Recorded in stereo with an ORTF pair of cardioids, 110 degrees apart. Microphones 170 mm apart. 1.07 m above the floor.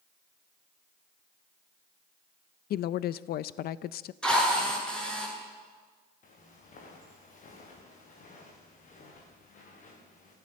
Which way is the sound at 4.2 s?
5° left.